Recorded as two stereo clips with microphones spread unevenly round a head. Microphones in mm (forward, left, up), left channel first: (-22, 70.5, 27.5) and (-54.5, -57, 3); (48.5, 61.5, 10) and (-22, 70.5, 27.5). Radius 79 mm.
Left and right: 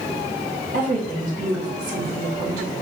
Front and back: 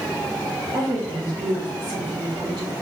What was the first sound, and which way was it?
A woman speaking, 125° right.